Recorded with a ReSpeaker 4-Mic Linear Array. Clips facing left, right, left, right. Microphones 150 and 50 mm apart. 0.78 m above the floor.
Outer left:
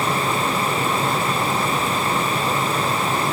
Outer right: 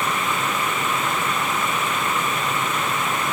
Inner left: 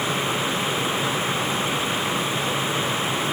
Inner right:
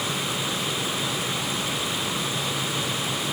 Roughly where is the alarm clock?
I don't hear an alarm clock.